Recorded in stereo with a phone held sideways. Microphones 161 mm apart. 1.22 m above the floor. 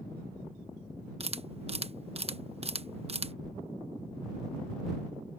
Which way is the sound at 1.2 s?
40° right (ahead or behind).